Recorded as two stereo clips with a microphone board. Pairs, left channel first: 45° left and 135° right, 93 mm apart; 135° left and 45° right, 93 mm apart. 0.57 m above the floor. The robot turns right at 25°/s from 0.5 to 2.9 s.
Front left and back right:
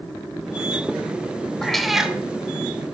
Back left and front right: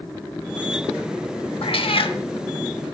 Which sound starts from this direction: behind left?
A cat meowing, at 1.6 s.